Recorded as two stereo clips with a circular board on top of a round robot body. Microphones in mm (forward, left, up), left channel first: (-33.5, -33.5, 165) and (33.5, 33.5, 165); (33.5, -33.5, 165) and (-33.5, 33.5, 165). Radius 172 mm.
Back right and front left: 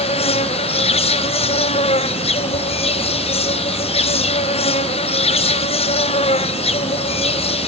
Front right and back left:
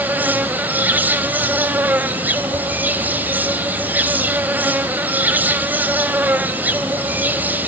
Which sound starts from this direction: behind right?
An insect, at 0.0 s.